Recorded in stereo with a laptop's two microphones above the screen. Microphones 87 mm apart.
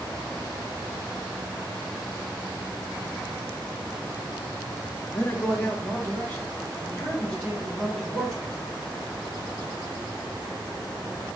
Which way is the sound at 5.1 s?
30° left (ahead or behind).